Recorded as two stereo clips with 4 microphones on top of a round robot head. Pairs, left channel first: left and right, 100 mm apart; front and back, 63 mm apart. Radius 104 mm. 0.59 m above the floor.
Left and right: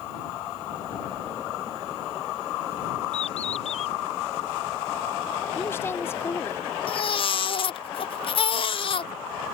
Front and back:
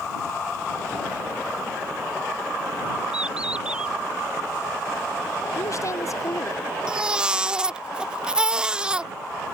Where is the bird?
105° left.